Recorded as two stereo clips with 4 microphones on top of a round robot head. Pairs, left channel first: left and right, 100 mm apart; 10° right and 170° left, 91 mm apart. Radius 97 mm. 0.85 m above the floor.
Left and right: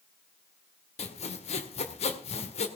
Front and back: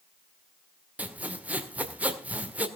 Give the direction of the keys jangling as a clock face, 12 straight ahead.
No keys jangling in this recording.